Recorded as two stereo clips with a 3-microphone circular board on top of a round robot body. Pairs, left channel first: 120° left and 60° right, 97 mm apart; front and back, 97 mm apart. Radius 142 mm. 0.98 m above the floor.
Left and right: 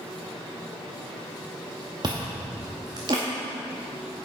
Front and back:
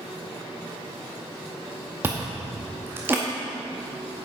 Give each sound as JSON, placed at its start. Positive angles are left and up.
{"t": 2.0, "sound": "chewing", "azimuth_deg": -110, "distance_m": 0.6}